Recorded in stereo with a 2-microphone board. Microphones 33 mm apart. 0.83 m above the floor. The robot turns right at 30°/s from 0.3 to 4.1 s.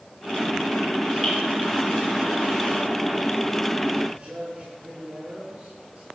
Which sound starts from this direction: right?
A man speaking, at 4.1 s.